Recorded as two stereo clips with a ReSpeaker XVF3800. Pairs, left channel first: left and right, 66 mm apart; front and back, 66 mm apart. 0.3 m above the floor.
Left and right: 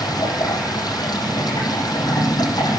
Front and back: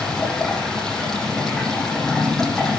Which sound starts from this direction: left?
Running water, at 0.0 s.